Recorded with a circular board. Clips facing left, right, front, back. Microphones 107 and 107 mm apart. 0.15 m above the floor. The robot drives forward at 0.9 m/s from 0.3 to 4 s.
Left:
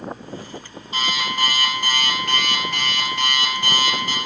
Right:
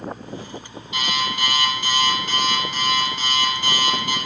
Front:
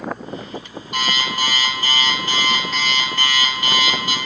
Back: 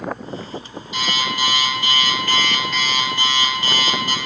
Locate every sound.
0.9 s an alarm clock: 35° left, 2 m; by 4.2 s 135° left, 1.6 m